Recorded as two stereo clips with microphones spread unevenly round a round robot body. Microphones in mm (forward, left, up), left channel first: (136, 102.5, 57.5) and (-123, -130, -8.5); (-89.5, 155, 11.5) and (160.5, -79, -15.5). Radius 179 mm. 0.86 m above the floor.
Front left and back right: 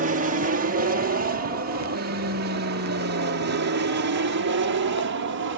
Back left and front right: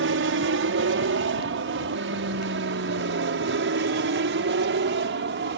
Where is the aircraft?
90° right; by 5.6 s 100° right.